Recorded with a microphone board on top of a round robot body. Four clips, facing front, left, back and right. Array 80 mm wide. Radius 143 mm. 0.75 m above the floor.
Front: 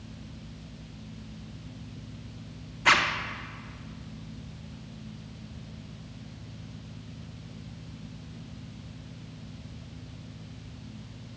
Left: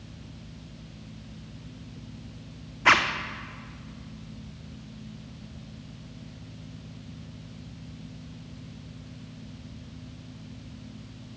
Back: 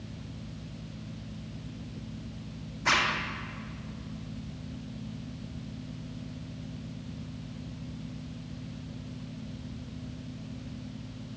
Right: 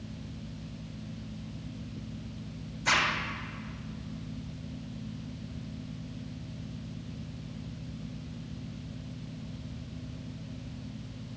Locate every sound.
2.9 s a zipper: 75° left, 0.9 m